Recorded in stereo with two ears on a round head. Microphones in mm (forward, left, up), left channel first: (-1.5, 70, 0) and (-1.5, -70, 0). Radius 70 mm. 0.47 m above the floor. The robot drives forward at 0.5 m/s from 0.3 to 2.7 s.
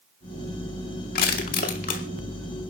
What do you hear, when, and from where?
1.1 s crushing: 60° left (ahead or behind), 2 m; by 2.0 s 55° left (ahead or behind), 2 m